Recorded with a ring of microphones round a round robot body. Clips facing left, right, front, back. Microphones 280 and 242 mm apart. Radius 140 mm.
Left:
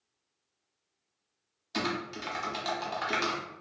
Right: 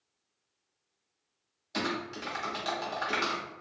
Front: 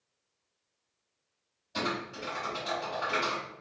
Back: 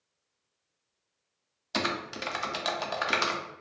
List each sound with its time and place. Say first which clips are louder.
1.7 s typing on a keyboard: even, back 1 dB; 170° left, 0.5 m